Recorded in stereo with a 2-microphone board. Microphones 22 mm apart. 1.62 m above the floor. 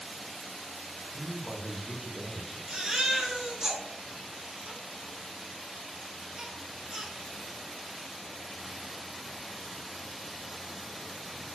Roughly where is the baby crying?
Right.